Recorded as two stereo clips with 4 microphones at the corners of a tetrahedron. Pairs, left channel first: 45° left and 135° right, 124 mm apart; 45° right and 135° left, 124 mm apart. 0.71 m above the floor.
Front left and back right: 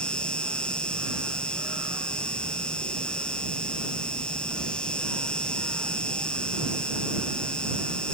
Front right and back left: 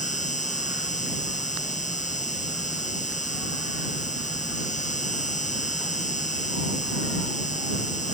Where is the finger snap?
I don't hear a finger snap.